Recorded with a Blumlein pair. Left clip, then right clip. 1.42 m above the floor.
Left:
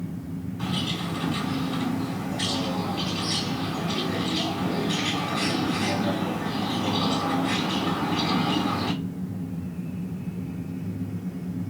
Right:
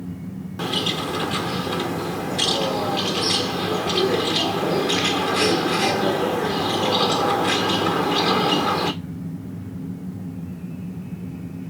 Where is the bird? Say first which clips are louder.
Right 7 dB; 50° right, 1.1 m.